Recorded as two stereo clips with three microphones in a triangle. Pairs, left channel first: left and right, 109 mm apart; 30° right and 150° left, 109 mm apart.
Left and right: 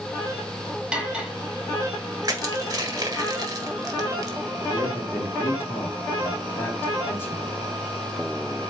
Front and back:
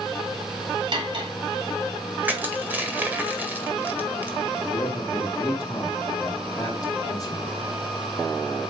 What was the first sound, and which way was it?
Cutlery clinking, 170° right.